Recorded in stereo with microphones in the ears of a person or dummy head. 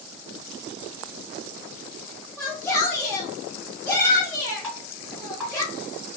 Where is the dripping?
5° left (ahead or behind), 1.7 m.